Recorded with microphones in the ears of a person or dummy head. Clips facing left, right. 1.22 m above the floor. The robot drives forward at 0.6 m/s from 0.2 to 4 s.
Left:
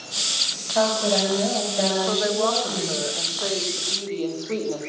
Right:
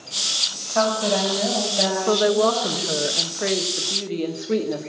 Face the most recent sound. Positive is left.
turn(degrees=-20)  # may be behind; listen again after turning